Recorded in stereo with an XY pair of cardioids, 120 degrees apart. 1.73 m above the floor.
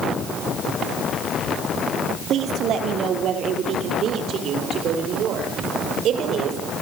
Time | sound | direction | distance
2.3 | a woman speaking | 60° right | 5 m